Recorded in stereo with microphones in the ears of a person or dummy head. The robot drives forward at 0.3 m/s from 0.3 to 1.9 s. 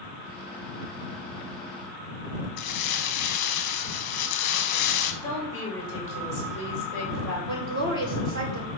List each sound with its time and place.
2.6 s crumpling: 50° left (ahead or behind), 1.1 m
5.2 s a woman speaking: 15° left (ahead or behind), 4 m
7.5 s a woman speaking: 60° right (ahead or behind), 2.5 m